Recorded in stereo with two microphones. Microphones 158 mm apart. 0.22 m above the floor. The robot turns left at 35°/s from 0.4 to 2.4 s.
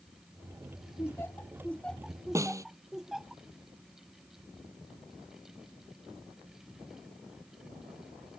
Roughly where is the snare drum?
Centre.